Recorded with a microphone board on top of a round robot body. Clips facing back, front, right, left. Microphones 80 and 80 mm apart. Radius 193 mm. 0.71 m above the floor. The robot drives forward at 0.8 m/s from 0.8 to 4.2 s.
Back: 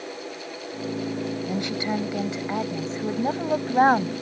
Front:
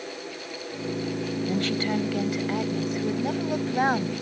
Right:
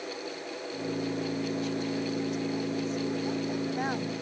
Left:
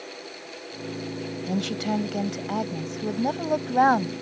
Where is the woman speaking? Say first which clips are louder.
Front 3 dB, left 4 dB; 105° left; by 4.1 s 125° left.